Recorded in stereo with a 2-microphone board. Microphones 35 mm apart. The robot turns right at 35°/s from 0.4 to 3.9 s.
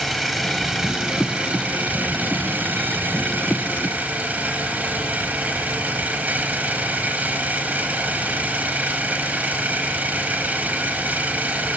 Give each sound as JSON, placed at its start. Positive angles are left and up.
{"t": 0.0, "sound": "an engine running", "azimuth_deg": 175, "distance_m": 4.0}